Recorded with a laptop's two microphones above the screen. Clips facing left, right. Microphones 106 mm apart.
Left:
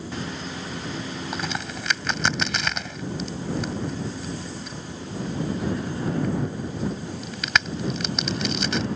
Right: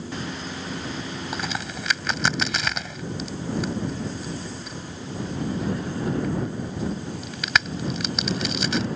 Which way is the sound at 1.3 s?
Centre (ahead or behind).